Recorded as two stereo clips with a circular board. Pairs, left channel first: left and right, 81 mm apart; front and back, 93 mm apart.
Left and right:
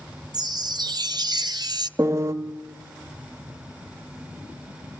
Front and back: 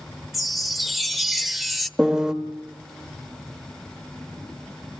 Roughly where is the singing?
No singing in this recording.